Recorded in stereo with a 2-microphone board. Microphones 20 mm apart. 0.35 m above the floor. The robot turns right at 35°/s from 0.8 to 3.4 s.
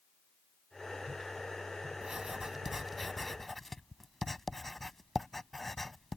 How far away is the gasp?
No gasp in this recording.